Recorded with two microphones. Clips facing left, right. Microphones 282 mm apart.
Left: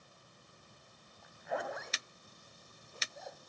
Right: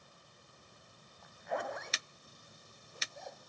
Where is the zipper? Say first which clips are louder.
Even; centre (ahead or behind), 1.3 m.